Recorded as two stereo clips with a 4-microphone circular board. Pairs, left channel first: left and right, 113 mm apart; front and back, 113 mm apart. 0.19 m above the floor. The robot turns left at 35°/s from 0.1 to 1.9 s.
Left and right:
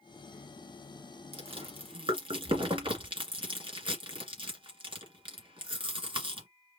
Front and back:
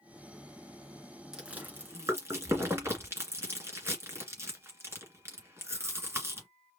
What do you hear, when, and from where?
1.3 s chewing: 95° right, 2 m; by 6.5 s 115° right, 2 m